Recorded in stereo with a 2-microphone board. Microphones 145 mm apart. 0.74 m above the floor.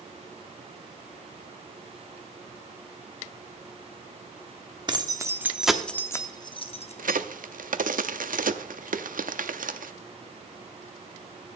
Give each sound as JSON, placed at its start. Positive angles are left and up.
{"t": 4.9, "sound": "keys jangling", "side_deg": -30, "distance_m": 0.9}
{"t": 7.0, "sound": "a crack", "side_deg": -70, "distance_m": 0.6}